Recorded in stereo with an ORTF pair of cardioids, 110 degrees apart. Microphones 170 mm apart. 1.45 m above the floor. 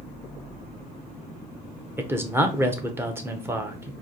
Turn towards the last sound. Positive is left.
turn(degrees=-15)